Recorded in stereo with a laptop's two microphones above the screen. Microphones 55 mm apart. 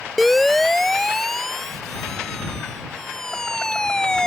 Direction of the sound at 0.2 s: 5° left (ahead or behind).